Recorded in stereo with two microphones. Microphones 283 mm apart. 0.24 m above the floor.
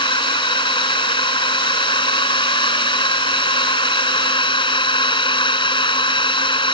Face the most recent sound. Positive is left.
turn(degrees=15)  # may be behind; listen again after turning